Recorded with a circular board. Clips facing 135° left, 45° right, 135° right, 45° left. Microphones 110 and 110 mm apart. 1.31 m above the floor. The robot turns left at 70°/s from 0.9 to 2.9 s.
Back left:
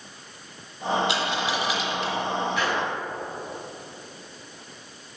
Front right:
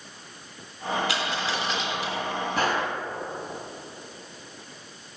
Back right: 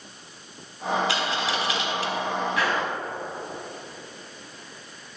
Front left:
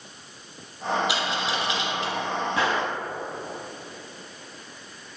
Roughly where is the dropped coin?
Left.